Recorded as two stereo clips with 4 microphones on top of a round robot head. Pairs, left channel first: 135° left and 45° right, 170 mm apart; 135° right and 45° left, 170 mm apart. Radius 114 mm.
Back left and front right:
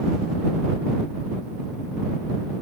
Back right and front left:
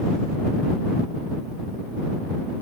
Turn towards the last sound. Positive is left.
No sound to turn to.